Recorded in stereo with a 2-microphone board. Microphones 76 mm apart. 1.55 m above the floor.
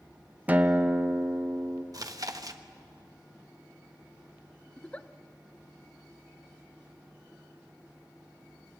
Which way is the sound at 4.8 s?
15° left (ahead or behind).